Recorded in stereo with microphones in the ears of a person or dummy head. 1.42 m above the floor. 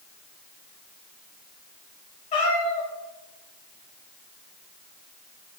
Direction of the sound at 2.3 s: 35° left (ahead or behind).